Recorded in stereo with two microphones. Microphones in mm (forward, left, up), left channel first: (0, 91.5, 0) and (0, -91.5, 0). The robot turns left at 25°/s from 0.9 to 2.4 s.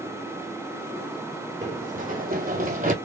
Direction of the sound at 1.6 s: 40° right (ahead or behind).